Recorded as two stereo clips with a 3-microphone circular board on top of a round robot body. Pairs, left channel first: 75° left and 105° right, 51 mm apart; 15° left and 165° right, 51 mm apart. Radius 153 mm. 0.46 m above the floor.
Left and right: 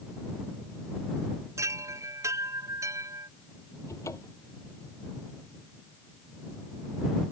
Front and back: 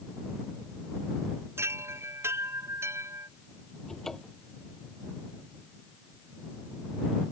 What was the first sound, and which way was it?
A chime, 130° right.